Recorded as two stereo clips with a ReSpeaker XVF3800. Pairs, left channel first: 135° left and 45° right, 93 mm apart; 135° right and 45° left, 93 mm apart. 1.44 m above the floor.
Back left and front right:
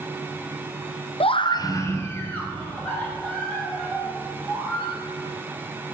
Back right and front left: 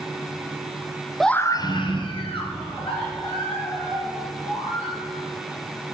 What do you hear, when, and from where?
1.2 s a scream: 135° left, 0.5 m; by 5.0 s 145° right, 5 m